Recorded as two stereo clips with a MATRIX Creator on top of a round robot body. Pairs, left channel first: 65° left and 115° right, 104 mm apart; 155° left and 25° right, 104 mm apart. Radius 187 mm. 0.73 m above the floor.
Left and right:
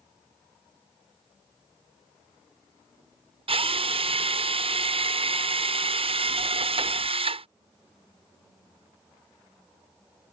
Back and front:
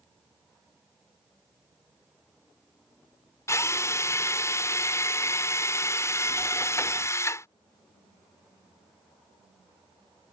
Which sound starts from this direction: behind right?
A drill, at 3.5 s.